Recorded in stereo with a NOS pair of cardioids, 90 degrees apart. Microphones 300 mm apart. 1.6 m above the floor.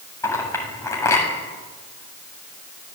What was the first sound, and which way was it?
A clink, 10° left.